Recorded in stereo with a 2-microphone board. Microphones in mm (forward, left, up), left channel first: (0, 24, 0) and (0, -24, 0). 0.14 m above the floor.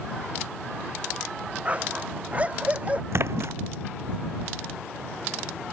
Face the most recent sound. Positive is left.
turn(degrees=-65)  # may be behind; listen again after turning